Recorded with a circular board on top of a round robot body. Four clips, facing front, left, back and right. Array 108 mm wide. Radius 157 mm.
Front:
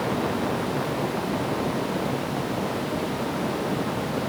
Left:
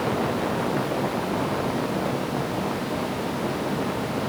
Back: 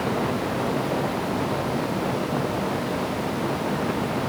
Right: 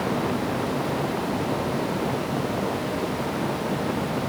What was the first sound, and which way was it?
Only background noise.